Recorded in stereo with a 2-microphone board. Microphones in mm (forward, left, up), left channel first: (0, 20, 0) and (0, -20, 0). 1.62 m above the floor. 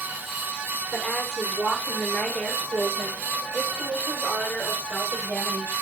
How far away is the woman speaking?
About 7.5 m.